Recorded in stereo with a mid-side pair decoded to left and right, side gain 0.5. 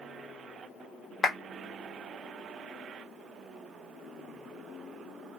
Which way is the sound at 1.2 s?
30° left.